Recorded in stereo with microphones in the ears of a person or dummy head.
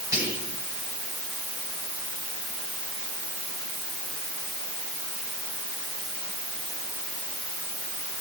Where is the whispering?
15° right (ahead or behind), 6 m.